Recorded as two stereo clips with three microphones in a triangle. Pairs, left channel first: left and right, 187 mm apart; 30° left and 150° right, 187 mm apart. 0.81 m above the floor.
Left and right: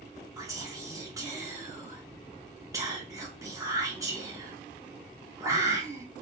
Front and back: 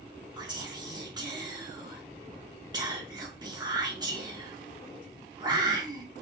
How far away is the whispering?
About 1.0 m.